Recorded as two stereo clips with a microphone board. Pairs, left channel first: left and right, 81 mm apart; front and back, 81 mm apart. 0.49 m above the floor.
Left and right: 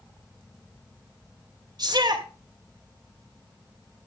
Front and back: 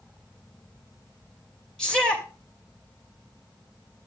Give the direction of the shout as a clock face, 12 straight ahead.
3 o'clock.